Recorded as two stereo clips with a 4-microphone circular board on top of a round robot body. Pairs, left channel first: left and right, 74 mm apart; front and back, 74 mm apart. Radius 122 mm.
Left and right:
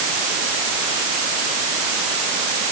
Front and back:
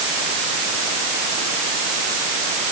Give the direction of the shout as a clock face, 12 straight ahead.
I don't hear a shout.